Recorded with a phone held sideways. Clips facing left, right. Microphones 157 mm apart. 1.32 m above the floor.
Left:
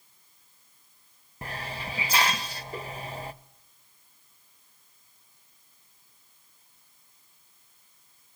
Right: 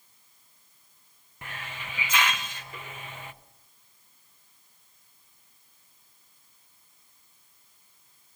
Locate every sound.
1.4 s a hiss: 35° left (ahead or behind), 0.6 m